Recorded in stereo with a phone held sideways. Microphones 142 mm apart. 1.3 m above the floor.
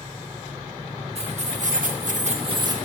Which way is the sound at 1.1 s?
50° right (ahead or behind).